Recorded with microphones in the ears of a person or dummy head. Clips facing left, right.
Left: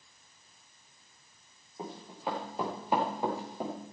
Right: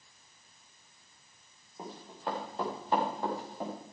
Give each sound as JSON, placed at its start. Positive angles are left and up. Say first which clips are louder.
{"t": 1.8, "sound": "running footsteps", "louder": "left 2 dB", "side_deg": 5, "distance_m": 4.5}